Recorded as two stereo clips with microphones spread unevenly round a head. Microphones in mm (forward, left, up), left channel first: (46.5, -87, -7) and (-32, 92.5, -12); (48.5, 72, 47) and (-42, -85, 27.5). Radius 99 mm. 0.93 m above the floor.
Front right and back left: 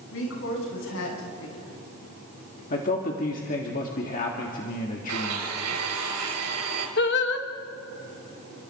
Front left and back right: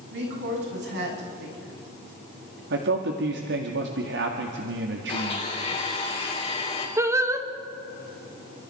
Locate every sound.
0.1 s a woman speaking: 95° right, 7.5 m
2.7 s a man speaking: 115° right, 2.0 m
5.1 s a blender: 120° left, 4.5 m
7.0 s singing: 55° right, 1.4 m